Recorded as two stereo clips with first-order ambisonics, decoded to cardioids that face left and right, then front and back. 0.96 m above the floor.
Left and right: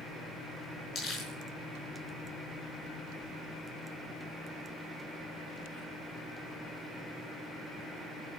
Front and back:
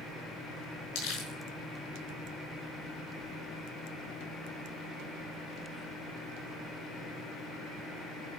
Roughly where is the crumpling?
Ahead left.